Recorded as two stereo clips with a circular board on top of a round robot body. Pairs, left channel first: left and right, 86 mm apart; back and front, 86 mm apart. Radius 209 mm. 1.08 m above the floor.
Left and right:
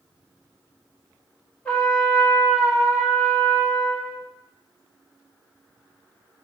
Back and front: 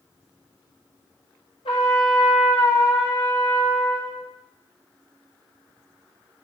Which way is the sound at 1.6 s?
165° left.